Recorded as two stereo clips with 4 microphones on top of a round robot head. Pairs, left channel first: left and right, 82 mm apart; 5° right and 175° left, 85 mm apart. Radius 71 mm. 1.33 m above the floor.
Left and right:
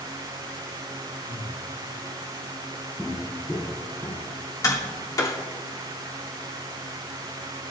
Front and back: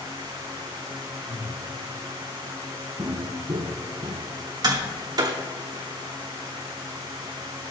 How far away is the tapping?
About 3 m.